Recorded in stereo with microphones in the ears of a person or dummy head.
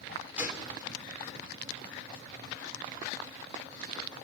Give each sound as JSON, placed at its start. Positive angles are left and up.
{"t": 0.4, "sound": "a gunshot", "side_deg": -10, "distance_m": 4.0}